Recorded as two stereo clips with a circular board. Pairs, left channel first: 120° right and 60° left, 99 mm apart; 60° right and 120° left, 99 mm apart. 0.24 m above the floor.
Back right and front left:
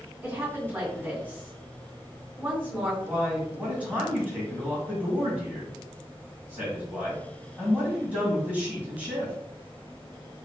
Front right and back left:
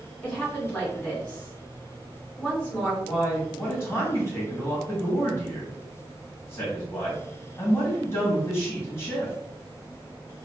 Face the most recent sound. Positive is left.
turn(degrees=-5)